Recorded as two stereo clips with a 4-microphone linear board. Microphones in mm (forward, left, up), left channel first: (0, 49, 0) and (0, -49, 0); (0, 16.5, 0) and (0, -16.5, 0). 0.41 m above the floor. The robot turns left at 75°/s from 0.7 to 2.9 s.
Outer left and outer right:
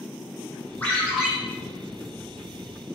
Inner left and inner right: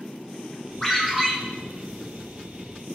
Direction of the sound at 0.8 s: 20° left.